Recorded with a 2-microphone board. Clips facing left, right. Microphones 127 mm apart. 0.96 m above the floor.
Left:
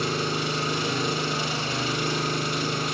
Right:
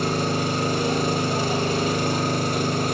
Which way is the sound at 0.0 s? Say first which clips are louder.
Right 4 dB; 40° right (ahead or behind).